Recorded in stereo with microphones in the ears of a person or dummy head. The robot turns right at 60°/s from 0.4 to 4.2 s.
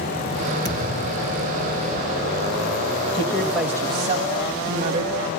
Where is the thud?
150° right, 5 m; by 1.4 s 105° right, 5 m.